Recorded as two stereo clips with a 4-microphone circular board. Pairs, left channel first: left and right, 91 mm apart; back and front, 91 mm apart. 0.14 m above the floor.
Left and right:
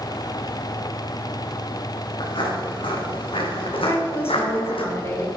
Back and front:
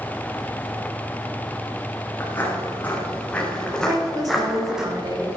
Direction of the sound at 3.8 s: 35° left.